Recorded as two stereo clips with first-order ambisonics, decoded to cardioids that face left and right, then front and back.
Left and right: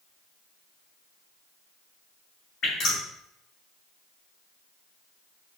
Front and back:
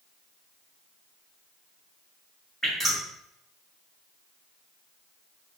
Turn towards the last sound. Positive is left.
turn(degrees=75)